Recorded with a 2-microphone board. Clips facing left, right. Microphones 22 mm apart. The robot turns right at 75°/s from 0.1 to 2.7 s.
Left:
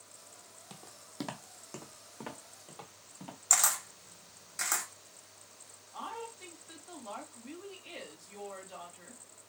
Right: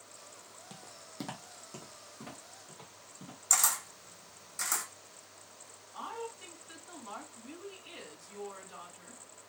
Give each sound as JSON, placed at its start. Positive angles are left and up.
{"t": 0.7, "sound": "footsteps", "side_deg": 5, "distance_m": 0.5}
{"t": 3.5, "sound": "a camera shutter", "side_deg": 20, "distance_m": 0.9}
{"t": 5.9, "sound": "a woman speaking", "side_deg": 35, "distance_m": 1.7}